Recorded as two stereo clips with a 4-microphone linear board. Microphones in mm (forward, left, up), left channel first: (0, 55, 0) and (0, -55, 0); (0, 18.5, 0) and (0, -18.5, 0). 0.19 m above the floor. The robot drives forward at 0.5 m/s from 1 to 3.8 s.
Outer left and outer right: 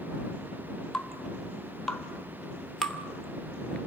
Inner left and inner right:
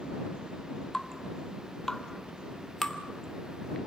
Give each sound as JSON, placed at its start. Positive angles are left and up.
{"t": 0.9, "sound": "dripping", "side_deg": 5, "distance_m": 2.5}